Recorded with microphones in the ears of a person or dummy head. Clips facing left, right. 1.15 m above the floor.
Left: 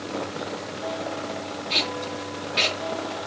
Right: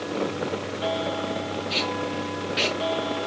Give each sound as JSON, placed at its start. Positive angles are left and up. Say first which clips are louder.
{"t": 1.7, "sound": "tape being pulled", "louder": "even", "side_deg": -5, "distance_m": 3.5}